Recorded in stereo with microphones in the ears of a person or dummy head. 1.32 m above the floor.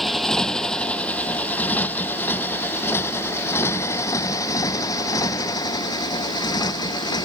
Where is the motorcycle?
Centre (ahead or behind); by 7.2 s 20° left (ahead or behind).